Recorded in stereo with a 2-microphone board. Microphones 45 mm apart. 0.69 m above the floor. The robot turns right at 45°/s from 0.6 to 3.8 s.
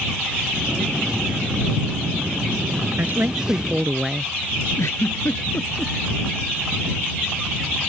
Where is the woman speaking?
50° right; by 4.3 s 15° right.